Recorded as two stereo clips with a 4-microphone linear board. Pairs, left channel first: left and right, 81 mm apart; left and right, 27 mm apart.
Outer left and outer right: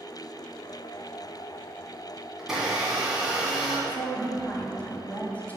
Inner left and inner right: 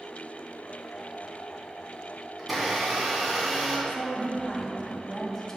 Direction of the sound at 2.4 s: 5° right (ahead or behind).